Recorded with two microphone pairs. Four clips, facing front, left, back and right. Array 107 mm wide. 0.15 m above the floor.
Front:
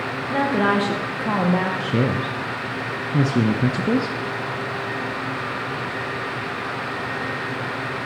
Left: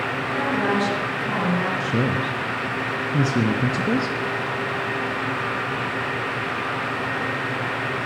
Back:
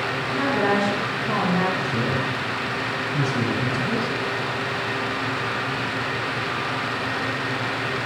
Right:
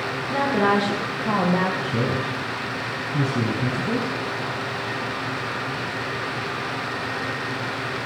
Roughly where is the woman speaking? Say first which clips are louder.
Right 3 dB, front 2 dB; ahead right.